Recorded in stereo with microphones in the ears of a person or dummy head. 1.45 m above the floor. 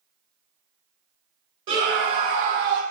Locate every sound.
1.7 s a scream: 30° right (ahead or behind), 1.4 m; by 2.8 s 60° right (ahead or behind), 0.5 m